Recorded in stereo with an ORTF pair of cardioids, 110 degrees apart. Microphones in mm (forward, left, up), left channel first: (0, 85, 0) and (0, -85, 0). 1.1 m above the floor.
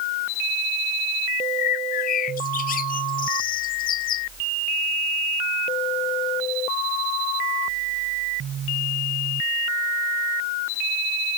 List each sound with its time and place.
1.6 s a bird: 55° left